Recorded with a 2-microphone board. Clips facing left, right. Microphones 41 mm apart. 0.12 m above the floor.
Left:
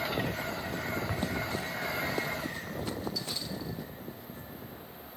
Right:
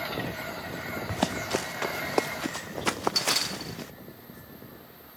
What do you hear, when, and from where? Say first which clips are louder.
1.1 s running footsteps: right 4 dB; 80° right; by 3.9 s 90° right